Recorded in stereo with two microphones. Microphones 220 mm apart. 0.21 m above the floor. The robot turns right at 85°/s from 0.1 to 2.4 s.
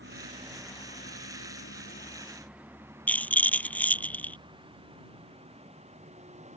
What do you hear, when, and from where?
0.0 s a vehicle: 60° right (ahead or behind); by 6.6 s 30° right (ahead or behind)
3.1 s a rattle: 5° left (ahead or behind)